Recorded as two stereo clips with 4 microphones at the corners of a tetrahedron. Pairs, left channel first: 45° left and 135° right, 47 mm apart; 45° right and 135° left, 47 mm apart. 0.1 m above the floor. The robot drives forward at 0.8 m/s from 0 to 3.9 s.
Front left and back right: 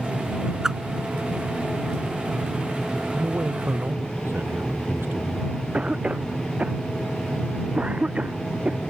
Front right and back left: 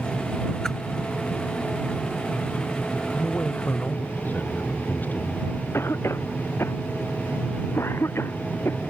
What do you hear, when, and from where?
0.6 s a whoosh: 85° right; by 0.8 s 110° right
3.2 s a man speaking: 95° right
5.7 s a cough: 70° right